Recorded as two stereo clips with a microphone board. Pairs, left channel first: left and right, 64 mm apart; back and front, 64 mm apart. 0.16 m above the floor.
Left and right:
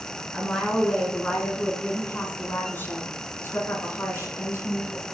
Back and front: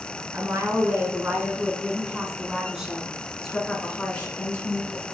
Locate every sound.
0.3 s a woman speaking: 10° left, 2 m; by 5.0 s 120° left, 2.5 m